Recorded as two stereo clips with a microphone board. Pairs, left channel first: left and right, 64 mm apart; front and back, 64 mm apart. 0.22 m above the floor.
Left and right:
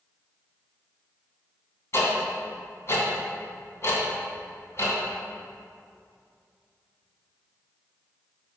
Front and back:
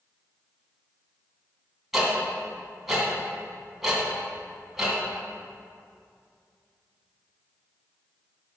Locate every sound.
1.9 s ticking: 95° left, 2.5 m